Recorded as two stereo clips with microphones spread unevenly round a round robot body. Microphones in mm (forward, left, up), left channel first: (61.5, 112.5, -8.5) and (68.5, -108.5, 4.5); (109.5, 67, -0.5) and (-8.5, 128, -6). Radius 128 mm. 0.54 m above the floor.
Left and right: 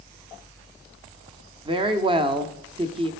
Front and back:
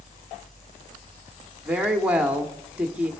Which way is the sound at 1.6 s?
140° right.